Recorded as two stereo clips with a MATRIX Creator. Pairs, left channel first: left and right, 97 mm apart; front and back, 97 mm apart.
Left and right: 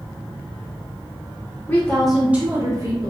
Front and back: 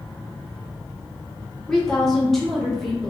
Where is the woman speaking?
75° left, 0.6 m; by 3.1 s 90° right, 0.8 m.